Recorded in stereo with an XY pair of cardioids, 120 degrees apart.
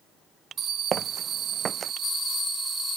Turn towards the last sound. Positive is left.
turn(degrees=-40)